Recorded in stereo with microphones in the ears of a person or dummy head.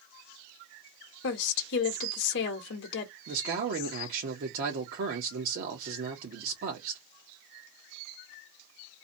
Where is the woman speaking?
60° left (ahead or behind), 0.8 m.